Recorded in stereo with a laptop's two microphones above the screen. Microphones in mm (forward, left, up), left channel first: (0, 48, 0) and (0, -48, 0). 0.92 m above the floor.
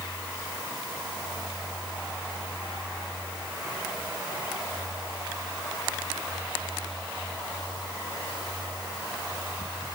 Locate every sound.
Only background noise.